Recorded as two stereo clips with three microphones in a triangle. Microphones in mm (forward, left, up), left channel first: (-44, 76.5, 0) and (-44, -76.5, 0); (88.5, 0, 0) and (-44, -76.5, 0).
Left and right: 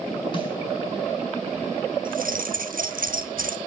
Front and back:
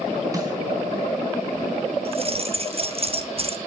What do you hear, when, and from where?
0.3 s a snare drum: 145° left, 4 m
2.0 s keys jangling: 100° right, 1.1 m